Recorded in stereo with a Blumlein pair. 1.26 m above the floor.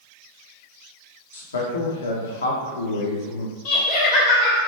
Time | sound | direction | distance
1.3 | a man speaking | 70° left | 0.9 m
3.6 | laughter | 40° left | 1.0 m